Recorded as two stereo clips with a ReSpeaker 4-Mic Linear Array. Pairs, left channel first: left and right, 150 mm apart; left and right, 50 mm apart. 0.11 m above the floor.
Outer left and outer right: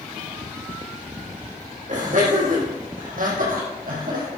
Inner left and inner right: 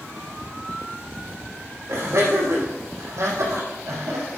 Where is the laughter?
55° right (ahead or behind), 5.5 m; by 4.3 s 70° right (ahead or behind), 5 m.